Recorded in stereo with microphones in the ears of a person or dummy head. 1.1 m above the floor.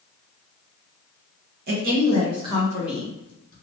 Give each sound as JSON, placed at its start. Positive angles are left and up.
{"t": 1.7, "sound": "a woman speaking", "side_deg": -55, "distance_m": 1.2}